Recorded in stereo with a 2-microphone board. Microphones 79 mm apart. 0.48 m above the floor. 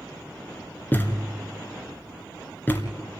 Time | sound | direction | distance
0.9 | a thud | 25° left (ahead or behind) | 1.9 m